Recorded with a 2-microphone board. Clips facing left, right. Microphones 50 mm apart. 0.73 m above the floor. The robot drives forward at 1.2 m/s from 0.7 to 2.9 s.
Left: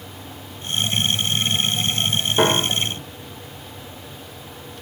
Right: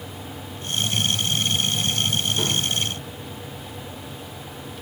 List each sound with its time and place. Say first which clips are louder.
2.4 s a piano: left 6 dB; 70° left (ahead or behind); by 3.0 s 80° left